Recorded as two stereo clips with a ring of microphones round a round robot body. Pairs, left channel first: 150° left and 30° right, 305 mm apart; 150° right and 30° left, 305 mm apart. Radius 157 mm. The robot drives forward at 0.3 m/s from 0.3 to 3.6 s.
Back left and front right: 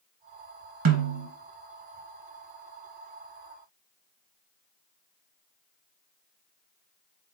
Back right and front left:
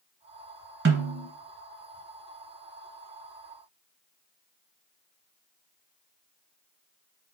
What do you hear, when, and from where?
0.8 s a snare drum: 15° right, 1.2 m